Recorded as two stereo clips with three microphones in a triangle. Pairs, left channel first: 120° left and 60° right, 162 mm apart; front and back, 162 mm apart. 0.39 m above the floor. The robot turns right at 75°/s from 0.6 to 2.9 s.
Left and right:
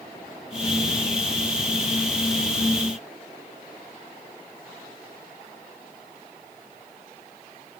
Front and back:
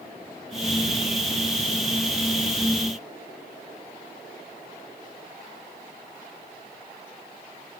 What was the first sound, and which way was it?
Only background noise.